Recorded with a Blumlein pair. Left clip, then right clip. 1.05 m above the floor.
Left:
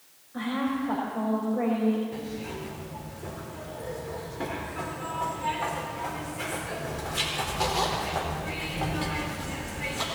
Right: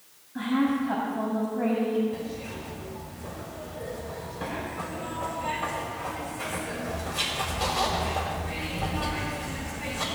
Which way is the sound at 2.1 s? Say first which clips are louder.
Right 1 dB; 40° left.